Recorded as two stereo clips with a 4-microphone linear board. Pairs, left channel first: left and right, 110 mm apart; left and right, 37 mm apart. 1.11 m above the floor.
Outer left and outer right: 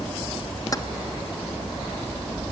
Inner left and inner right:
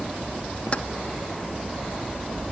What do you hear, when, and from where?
0.7 s keys jangling: 35° left (ahead or behind), 1.0 m